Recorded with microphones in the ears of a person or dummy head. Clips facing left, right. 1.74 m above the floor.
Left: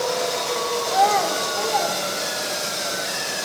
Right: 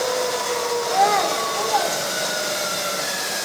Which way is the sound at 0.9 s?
20° right (ahead or behind).